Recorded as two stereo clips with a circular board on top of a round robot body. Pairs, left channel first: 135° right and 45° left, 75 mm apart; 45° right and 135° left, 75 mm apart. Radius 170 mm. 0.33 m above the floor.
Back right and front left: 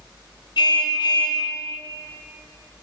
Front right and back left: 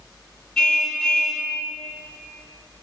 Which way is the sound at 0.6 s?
125° right.